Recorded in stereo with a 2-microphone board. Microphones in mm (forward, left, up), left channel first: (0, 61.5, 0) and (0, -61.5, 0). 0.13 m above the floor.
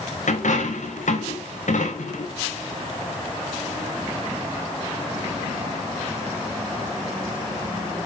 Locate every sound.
0.3 s a dropped coin: 85° left, 4.5 m